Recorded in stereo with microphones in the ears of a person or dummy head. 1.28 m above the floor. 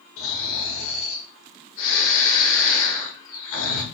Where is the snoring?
75° left (ahead or behind), 1.9 m.